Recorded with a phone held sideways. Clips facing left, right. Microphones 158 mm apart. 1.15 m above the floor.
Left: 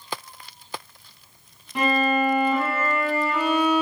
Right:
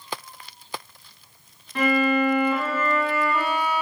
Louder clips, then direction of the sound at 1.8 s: Right 1 dB; 15° left (ahead or behind).